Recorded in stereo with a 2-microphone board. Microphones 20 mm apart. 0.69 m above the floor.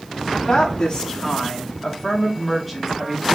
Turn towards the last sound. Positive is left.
turn(degrees=-5)  # may be behind; listen again after turning